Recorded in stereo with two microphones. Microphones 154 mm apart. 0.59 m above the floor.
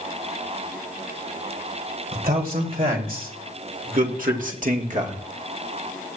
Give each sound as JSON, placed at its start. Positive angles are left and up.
{"t": 2.1, "sound": "a man speaking", "side_deg": -70, "distance_m": 2.5}